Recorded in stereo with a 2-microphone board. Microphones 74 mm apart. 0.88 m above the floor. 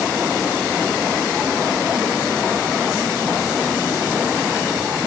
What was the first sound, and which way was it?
Only background noise.